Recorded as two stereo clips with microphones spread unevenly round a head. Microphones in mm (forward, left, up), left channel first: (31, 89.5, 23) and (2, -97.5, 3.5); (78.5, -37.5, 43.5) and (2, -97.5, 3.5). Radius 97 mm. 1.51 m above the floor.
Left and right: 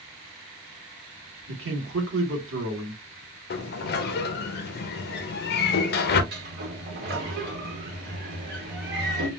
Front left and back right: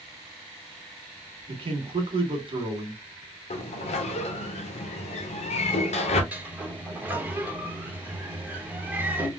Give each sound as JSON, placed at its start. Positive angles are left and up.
{"t": 1.5, "sound": "a man speaking", "azimuth_deg": -125, "distance_m": 1.7}
{"t": 3.5, "sound": "a sliding door", "azimuth_deg": 45, "distance_m": 0.5}
{"t": 6.3, "sound": "a sliding door", "azimuth_deg": -60, "distance_m": 1.1}